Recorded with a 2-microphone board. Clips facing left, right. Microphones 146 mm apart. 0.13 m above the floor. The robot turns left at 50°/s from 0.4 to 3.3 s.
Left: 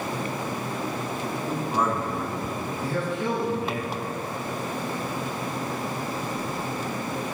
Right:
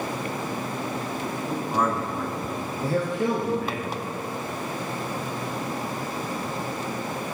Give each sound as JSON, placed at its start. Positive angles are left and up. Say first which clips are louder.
{"t": 1.5, "sound": "a man speaking", "louder": "right 1 dB", "side_deg": 0, "distance_m": 1.5}
{"t": 2.8, "sound": "a man speaking", "louder": "right 4 dB", "side_deg": -35, "distance_m": 1.9}